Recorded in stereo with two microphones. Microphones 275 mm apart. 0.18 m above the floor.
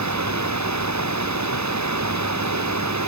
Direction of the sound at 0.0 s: 80° right.